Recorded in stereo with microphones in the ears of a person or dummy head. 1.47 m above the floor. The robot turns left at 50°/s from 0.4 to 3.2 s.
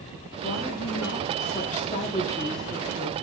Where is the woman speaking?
115° left, 4 m; by 3.1 s 20° right, 4 m.